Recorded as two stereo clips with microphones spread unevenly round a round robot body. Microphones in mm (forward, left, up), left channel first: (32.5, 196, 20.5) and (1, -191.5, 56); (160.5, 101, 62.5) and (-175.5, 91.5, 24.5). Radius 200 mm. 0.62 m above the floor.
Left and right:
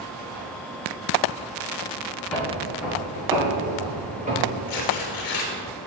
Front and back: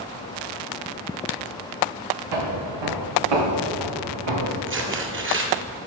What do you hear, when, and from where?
2.3 s footsteps: 175° left, 3.5 m; by 4.6 s 165° right, 3.5 m
4.7 s tearing paper: 125° left, 2 m